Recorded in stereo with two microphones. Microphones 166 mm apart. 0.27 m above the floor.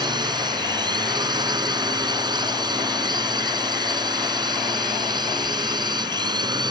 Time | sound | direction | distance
0.0 | a drone | 25° right (ahead or behind) | ?